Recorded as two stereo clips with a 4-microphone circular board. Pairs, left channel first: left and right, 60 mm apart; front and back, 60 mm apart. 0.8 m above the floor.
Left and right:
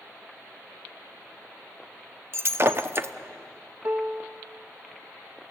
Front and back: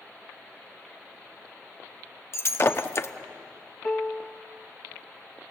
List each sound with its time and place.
2.3 s breaking glass: 45° right, 0.8 m
3.8 s a piano: 65° right, 0.8 m